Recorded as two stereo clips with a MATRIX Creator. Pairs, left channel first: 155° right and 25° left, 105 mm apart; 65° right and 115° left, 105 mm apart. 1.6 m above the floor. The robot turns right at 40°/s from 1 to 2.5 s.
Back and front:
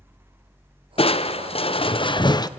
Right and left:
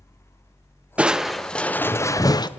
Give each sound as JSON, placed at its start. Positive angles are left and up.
{"t": 1.0, "sound": "crushing", "azimuth_deg": -170, "distance_m": 0.6}